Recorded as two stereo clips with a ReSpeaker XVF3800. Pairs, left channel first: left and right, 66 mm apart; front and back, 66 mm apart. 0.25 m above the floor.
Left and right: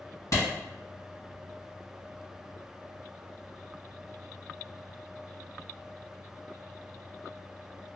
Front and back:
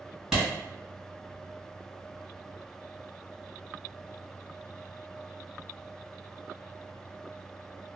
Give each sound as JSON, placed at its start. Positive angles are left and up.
{"t": 0.3, "sound": "a clap", "azimuth_deg": 100, "distance_m": 1.8}